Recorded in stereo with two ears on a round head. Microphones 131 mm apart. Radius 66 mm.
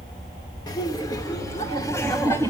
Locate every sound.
0.7 s laughter: 30° left (ahead or behind), 1.8 m; by 2.5 s 20° left (ahead or behind), 2.5 m